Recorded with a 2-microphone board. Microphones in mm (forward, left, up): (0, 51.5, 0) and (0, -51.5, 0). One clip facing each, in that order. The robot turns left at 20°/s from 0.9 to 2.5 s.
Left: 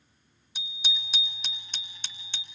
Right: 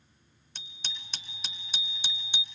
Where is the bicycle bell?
10° left, 2 m; by 2.5 s 20° right, 2 m.